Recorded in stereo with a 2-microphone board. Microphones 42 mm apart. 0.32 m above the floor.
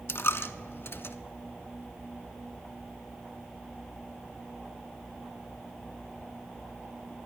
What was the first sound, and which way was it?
A dropped coin, 75° left (ahead or behind).